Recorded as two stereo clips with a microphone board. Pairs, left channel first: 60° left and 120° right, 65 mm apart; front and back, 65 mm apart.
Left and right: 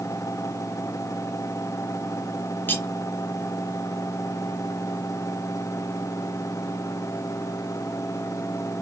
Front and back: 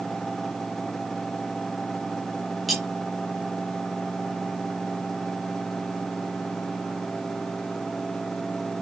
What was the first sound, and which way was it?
Cutlery clinking, 90° left.